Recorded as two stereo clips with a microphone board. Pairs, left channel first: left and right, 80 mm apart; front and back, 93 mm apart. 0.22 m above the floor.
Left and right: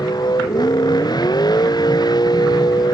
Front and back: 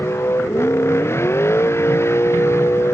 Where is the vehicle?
60° left.